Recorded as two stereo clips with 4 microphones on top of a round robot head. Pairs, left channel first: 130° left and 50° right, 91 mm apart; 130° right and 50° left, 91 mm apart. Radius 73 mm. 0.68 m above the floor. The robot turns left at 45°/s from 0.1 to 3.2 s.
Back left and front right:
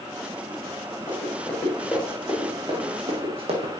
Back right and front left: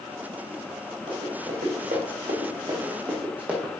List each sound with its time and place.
1.1 s running footsteps: 85° left, 4 m; by 3.8 s 30° right, 1.9 m